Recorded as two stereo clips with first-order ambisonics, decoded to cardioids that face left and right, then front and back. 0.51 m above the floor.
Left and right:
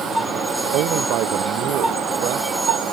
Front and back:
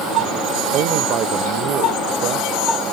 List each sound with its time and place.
0.7 s a man speaking: 130° right; by 2.8 s 135° right